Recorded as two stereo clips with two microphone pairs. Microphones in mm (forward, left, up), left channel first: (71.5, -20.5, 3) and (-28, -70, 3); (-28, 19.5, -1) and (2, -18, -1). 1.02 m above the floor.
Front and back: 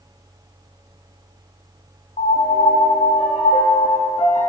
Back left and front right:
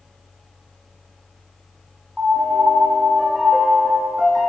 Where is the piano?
25° left, 1.2 m.